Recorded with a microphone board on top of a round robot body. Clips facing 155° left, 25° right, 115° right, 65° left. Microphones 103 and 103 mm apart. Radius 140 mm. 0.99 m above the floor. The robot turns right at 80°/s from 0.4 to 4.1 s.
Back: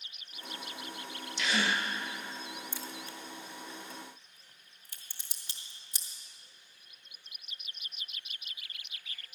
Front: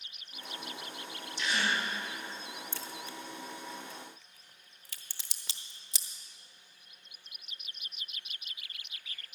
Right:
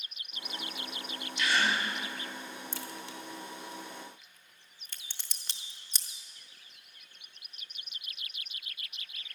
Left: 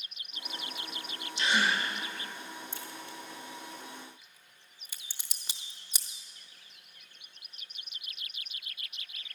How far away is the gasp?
About 0.8 m.